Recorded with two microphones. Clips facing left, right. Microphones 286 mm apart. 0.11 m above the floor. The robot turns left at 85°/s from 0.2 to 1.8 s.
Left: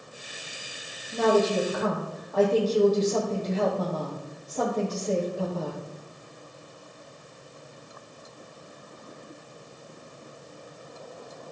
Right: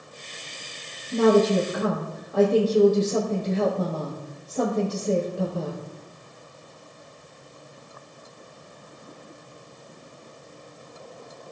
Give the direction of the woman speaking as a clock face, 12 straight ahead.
4 o'clock.